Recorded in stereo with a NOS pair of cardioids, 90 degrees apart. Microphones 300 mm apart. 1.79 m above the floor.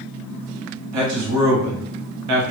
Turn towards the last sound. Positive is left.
turn(degrees=-65)